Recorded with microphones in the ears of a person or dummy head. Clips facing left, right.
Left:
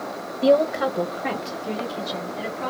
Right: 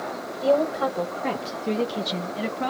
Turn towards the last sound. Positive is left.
turn(degrees=-60)  # may be behind; listen again after turning